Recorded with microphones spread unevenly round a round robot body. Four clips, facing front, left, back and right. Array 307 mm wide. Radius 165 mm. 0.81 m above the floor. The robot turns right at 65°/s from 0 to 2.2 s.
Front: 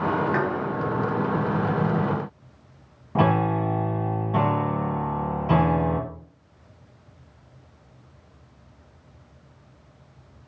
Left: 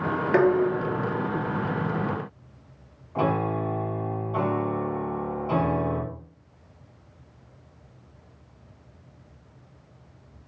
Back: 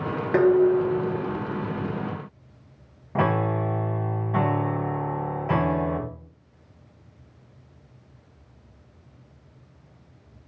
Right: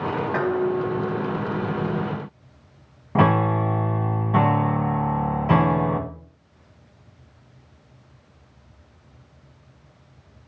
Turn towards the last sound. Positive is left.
turn(degrees=-80)